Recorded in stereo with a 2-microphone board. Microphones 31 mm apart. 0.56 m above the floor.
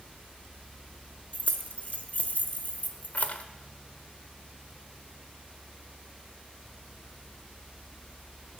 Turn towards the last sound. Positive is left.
turn(degrees=60)  # may be behind; listen again after turning